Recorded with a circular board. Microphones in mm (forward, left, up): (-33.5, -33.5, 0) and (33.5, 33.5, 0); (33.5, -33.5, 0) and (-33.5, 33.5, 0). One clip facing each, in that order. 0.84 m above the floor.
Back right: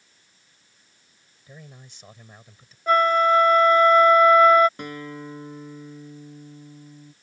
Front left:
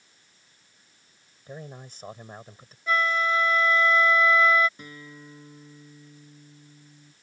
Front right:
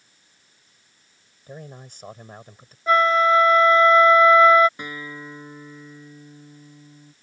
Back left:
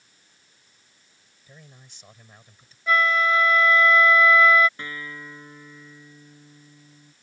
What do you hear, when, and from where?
1.5 s a man speaking: 5° right
2.9 s a flute: 100° right
4.8 s a guitar: 115° right